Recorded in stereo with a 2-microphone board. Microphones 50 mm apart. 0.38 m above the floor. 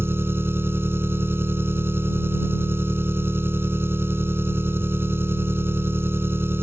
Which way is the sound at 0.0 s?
50° right (ahead or behind).